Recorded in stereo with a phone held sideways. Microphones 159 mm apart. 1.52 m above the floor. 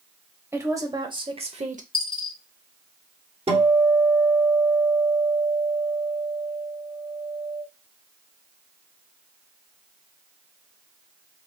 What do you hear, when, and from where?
0.5 s a woman speaking: 15° right (ahead or behind), 1.1 m; by 1.8 s 55° right (ahead or behind), 0.8 m
1.9 s a dropped coin: 35° left (ahead or behind), 2.5 m
3.5 s a guitar: 40° right (ahead or behind), 1.3 m